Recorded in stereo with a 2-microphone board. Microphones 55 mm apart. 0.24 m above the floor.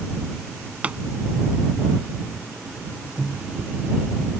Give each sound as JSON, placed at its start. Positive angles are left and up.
{"t": 0.8, "sound": "a pop", "side_deg": -25}
{"t": 3.2, "sound": "a microwave", "side_deg": -20}